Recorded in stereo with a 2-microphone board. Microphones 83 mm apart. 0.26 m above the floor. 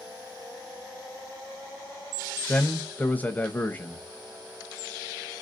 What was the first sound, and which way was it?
A man speaking, 20° left (ahead or behind).